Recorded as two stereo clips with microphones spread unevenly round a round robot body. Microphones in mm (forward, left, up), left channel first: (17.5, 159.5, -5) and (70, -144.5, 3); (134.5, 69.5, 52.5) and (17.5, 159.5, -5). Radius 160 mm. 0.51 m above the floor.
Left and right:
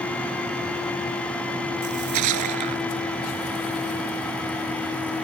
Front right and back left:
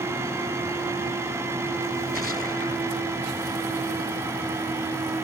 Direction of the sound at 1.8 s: 120° right.